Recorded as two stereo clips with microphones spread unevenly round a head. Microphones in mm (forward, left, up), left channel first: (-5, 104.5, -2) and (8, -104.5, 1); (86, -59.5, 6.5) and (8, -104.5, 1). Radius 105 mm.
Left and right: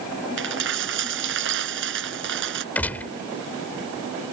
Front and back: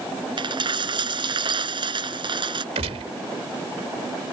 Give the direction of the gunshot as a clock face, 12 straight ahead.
6 o'clock.